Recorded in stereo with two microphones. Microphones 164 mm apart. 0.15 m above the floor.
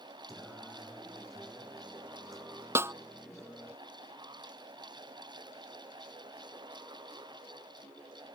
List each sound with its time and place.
0.3 s singing: centre (ahead or behind)
2.8 s a snare drum: 15° right (ahead or behind)